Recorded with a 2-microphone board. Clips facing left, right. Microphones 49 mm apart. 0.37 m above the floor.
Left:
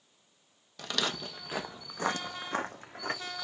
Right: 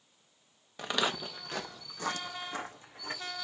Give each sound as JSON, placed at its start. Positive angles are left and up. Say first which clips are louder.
{"t": 0.8, "sound": "footsteps", "louder": "right 2 dB", "side_deg": -25, "distance_m": 0.7}